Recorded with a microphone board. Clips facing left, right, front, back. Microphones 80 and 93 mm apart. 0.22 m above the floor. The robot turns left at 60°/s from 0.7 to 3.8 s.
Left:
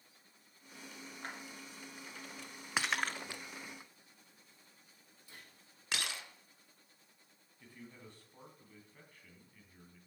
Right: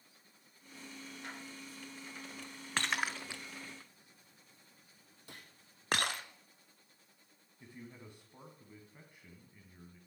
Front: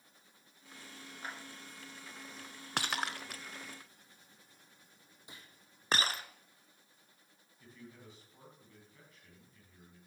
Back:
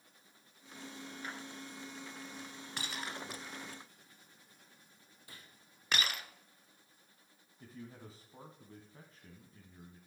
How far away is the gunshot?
About 2.5 m.